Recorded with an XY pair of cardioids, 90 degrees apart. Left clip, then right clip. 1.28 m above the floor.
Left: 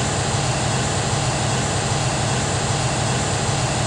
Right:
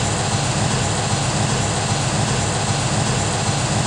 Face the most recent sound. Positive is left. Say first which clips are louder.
# right 1 dB
turn(degrees=-55)